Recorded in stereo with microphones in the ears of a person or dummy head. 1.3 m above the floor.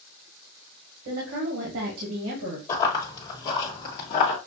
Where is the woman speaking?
50° right (ahead or behind), 1.7 m; by 2.6 s 65° right (ahead or behind), 2 m.